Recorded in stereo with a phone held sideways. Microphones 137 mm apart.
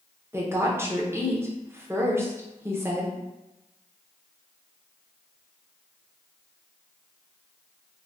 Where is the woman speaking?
20° right (ahead or behind), 0.6 m.